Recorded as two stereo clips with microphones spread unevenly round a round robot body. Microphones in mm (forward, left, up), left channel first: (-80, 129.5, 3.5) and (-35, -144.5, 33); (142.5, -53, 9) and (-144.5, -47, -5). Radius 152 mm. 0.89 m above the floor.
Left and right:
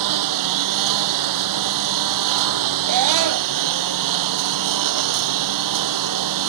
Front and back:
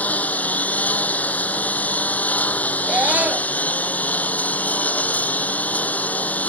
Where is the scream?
95° right.